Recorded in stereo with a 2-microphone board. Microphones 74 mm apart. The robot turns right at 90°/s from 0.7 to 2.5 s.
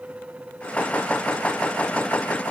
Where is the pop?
I don't hear a pop.